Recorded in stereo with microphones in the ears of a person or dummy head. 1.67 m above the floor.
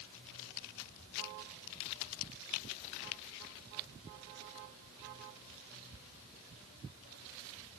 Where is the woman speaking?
I don't hear a woman speaking.